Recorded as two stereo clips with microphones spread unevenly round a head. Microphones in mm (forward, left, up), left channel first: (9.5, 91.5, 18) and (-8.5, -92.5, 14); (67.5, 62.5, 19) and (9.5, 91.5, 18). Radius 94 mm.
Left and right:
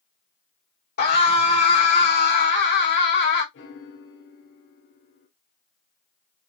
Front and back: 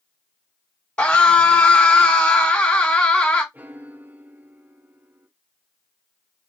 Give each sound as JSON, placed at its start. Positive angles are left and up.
{"t": 1.0, "sound": "a scream", "azimuth_deg": 45, "distance_m": 3.0}
{"t": 3.5, "sound": "a piano", "azimuth_deg": 90, "distance_m": 1.1}